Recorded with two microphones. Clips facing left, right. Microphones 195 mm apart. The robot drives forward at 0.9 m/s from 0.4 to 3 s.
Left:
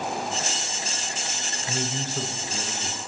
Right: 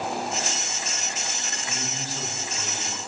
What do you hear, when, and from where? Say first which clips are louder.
1.7 s a man speaking: left 6 dB; 60° left (ahead or behind), 1.6 m; by 3.0 s 45° left (ahead or behind), 2.0 m